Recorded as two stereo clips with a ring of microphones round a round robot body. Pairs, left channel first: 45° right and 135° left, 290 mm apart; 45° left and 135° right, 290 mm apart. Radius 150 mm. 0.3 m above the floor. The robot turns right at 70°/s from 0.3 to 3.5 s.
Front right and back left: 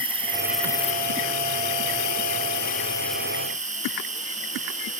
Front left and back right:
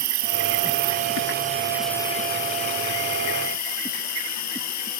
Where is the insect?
155° right, 2 m; by 5.0 s 70° left, 2 m.